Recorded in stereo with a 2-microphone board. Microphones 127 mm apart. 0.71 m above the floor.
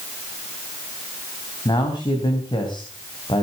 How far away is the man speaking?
About 3.5 m.